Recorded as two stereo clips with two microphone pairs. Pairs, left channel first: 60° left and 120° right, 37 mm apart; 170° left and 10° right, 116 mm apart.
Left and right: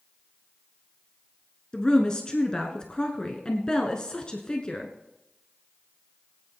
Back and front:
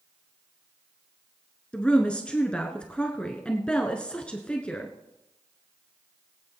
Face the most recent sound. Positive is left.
turn(degrees=95)